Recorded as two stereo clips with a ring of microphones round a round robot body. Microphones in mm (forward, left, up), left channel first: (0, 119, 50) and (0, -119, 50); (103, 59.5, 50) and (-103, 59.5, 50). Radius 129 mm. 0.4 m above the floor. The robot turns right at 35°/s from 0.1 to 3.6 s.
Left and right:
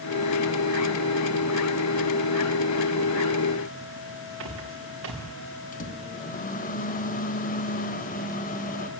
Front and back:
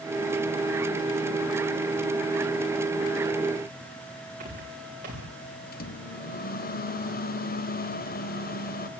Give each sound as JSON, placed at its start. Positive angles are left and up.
{"t": 4.4, "sound": "footsteps", "azimuth_deg": -125, "distance_m": 7.5}
{"t": 5.7, "sound": "a microwave", "azimuth_deg": 40, "distance_m": 1.7}